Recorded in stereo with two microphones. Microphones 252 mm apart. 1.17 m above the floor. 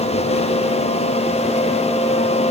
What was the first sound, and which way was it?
Only background noise.